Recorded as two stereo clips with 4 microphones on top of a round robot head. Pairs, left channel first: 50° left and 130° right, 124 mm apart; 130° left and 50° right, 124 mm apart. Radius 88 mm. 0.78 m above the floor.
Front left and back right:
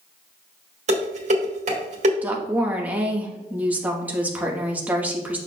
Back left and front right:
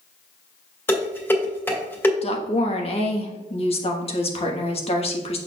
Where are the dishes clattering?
160° right, 1.9 m.